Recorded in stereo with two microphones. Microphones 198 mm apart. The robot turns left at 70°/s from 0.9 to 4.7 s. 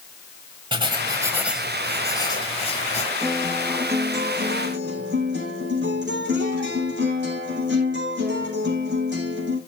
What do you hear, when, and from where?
0.7 s writing: 125° right, 1.3 m; by 3.1 s 80° left, 1.3 m
3.2 s a guitar: 35° left, 4.5 m; by 9.6 s 70° right, 4.5 m